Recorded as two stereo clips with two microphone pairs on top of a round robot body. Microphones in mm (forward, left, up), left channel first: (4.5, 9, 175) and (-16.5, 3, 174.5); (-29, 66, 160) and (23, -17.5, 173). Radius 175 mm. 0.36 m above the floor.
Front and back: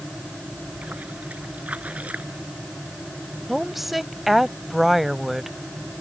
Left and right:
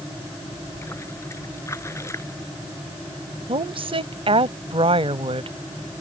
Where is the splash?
175° right.